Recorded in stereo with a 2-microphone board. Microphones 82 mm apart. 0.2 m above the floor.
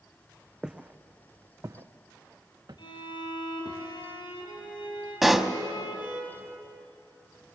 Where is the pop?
5° right (ahead or behind), 1.0 m.